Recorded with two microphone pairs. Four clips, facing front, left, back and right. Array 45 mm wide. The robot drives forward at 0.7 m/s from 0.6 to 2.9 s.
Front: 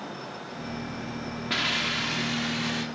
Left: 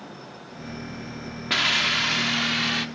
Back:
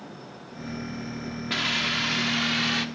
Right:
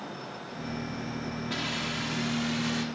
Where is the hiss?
90° left, 1.2 m; by 2.9 s 130° left, 1.5 m.